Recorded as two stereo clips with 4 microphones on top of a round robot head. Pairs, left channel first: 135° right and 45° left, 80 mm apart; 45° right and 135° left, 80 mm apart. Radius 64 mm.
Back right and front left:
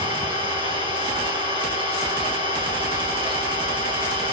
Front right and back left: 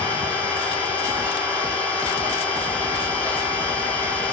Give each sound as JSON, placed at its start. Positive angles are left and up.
{"t": 0.0, "sound": "an engine running", "azimuth_deg": 30, "distance_m": 6.5}